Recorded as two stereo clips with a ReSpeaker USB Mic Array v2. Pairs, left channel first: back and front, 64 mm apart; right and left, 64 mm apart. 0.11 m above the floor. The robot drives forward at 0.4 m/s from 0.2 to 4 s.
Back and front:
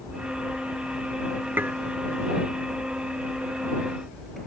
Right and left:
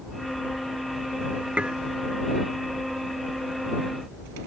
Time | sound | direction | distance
1.6 | dishes clattering | 30° left | ?